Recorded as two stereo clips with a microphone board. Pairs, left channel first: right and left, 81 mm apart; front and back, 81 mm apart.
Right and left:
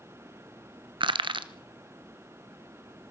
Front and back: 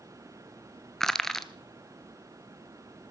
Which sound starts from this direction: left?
Crushing, at 1.0 s.